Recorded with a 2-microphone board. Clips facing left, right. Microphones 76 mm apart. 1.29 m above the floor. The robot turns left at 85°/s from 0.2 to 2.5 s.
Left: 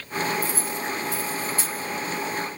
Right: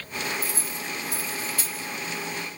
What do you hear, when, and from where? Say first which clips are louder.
0.4 s keys jangling: left 5 dB; 65° right (ahead or behind), 1.0 m; by 1.9 s 50° left (ahead or behind), 1.0 m